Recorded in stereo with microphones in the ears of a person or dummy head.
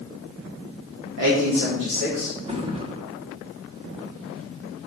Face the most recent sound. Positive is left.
turn(degrees=-30)  # may be behind; listen again after turning